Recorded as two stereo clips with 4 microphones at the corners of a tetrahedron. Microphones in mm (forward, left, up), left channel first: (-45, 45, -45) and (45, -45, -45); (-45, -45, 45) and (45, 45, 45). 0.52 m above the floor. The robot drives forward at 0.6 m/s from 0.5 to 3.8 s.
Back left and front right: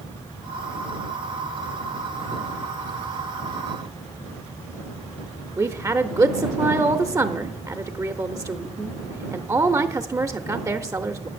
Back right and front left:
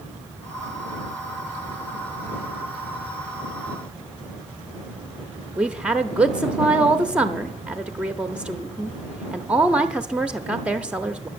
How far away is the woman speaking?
About 0.7 m.